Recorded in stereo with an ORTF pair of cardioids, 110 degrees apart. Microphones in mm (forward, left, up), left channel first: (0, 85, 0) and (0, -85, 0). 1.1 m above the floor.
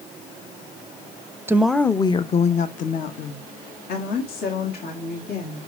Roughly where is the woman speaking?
Ahead.